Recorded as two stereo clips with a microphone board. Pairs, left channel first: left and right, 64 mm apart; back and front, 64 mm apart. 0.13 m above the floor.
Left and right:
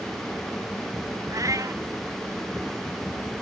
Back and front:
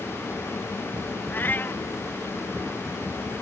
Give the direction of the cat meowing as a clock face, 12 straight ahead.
4 o'clock.